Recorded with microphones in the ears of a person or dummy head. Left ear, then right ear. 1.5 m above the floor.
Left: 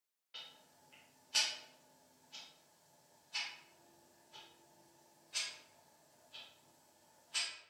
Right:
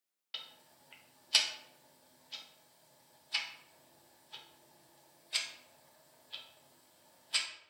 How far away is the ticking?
About 0.7 m.